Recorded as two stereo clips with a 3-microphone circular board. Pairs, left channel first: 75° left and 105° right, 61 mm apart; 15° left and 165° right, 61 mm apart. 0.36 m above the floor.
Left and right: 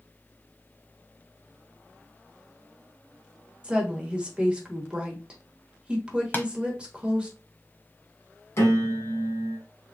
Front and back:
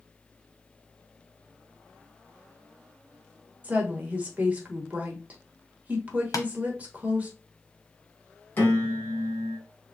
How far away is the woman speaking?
About 1.1 m.